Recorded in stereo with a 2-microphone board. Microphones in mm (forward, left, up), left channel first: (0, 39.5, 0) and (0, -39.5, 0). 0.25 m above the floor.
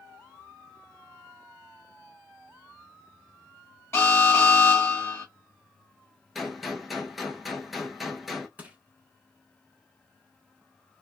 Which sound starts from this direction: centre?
A gunshot, at 6.3 s.